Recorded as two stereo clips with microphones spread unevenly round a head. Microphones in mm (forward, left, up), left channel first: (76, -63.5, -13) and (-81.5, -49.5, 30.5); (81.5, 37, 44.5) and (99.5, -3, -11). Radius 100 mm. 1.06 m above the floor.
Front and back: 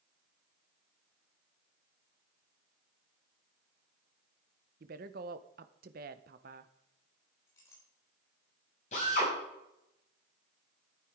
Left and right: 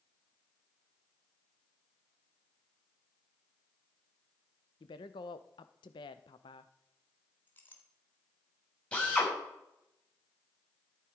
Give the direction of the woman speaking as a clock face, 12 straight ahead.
7 o'clock.